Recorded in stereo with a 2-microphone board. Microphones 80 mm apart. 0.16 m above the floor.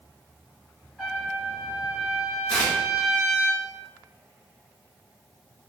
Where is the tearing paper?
10° left (ahead or behind), 1.2 m.